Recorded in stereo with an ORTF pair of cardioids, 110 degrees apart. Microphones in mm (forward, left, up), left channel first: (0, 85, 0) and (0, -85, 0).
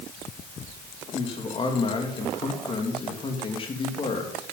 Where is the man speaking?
35° left, 3 m.